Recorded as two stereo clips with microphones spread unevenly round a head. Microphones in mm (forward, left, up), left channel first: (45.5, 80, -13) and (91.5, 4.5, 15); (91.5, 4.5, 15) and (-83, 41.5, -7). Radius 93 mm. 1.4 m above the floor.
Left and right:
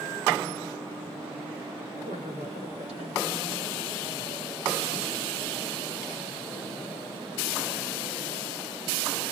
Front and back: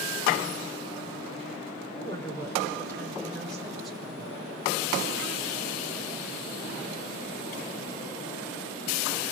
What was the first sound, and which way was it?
A woman speaking, 85° right.